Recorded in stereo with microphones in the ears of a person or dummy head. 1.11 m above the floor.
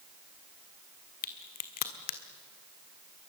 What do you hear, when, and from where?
1.2 s a crack: 45° left (ahead or behind), 1.4 m